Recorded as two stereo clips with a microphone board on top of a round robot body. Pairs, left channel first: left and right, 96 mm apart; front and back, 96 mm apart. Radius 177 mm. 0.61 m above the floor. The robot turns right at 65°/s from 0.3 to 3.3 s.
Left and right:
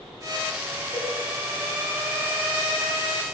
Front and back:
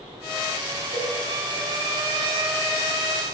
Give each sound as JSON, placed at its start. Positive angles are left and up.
{"t": 0.9, "sound": "a cowbell", "azimuth_deg": -15, "distance_m": 3.5}